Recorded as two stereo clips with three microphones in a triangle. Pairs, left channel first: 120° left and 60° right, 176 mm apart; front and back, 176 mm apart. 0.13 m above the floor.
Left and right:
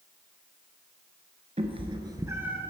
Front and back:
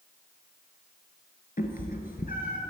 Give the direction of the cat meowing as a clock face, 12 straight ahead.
1 o'clock.